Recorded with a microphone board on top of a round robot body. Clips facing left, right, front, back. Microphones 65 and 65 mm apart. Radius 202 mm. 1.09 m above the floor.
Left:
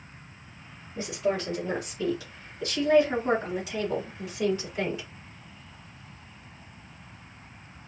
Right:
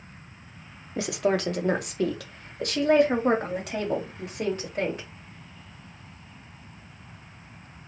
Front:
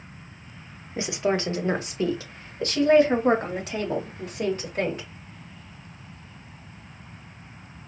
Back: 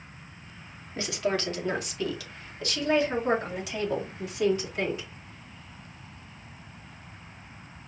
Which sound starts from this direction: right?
A woman speaking, at 1.0 s.